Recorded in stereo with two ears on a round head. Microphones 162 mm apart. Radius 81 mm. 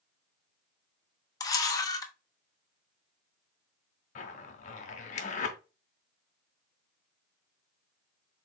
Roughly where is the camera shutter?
Left.